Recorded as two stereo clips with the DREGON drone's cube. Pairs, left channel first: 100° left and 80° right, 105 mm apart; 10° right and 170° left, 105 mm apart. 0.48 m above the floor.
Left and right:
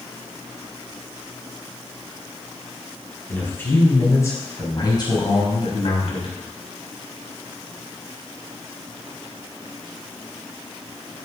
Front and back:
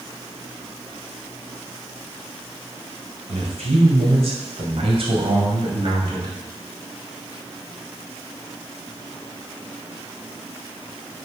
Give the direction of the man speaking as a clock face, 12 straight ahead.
6 o'clock.